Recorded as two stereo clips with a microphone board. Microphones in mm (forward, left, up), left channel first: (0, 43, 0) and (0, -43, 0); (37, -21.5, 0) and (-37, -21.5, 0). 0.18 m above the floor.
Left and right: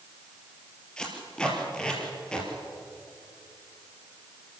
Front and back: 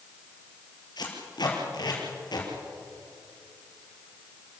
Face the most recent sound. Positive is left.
turn(degrees=10)